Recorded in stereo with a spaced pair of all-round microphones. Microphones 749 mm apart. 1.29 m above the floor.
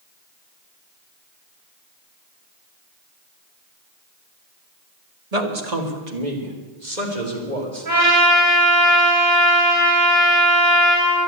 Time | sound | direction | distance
5.3 | a man speaking | 55° right (ahead or behind) | 1.7 m
7.8 | a trumpet | 80° right | 5 m